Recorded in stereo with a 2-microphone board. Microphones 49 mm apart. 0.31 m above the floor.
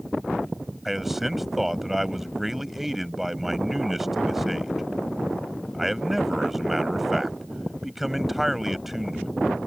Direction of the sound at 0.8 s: 5° right (ahead or behind).